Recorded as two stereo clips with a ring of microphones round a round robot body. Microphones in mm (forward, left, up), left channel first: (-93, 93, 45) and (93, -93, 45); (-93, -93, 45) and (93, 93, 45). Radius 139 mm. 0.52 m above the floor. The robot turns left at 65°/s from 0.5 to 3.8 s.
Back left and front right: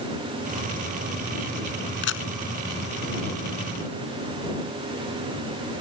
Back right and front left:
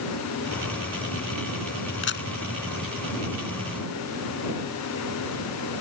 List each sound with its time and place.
2.0 s a camera shutter: 175° right; by 2.3 s 165° left